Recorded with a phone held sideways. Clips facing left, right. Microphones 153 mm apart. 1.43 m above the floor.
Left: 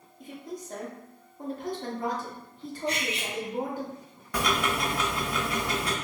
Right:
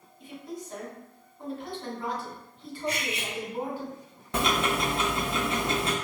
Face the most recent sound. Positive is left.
turn(degrees=-25)  # may be behind; listen again after turning